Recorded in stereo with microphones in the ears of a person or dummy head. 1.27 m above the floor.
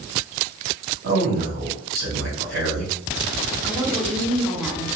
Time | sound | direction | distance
1.0 | a man speaking | 60° right (ahead or behind) | 2.5 m
3.6 | a woman speaking | 5° right (ahead or behind) | 2.5 m